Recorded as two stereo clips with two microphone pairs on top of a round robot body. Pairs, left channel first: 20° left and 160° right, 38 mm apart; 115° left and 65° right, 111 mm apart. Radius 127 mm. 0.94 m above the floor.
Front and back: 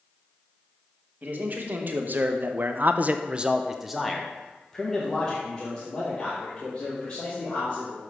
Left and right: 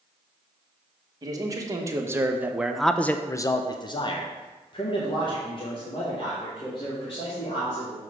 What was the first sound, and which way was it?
A man speaking, 120° right.